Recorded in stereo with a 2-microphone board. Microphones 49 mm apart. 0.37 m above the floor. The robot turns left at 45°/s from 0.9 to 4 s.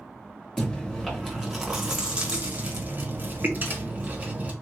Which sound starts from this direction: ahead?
Chewing, at 0.6 s.